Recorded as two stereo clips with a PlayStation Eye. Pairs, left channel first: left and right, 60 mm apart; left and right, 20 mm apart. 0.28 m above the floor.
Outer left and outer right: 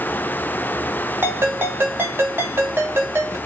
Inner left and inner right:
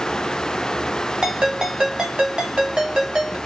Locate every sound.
1.2 s a ringtone: 40° right (ahead or behind), 1.2 m